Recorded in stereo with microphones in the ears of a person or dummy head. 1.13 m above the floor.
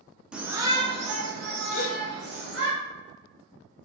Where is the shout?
5° right (ahead or behind), 0.6 m; by 2.7 s 65° right (ahead or behind), 1.4 m.